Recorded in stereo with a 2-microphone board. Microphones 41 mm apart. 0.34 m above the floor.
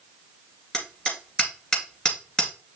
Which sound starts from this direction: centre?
Hammering, at 0.7 s.